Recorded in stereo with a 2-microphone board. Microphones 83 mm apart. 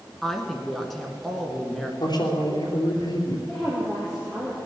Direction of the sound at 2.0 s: 60° left (ahead or behind).